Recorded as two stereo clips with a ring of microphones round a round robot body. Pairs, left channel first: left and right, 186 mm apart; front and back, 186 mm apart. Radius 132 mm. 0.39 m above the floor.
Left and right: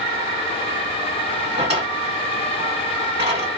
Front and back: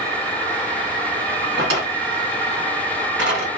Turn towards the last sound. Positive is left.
turn(degrees=-160)